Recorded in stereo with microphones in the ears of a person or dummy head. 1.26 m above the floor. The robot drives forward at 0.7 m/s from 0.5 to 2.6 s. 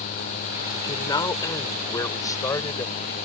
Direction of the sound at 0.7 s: 20° left (ahead or behind).